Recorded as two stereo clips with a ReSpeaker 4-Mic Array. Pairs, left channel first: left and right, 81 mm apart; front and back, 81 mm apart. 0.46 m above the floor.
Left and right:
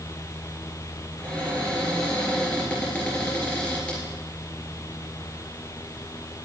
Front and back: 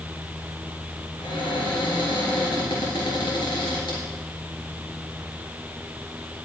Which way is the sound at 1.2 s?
15° left.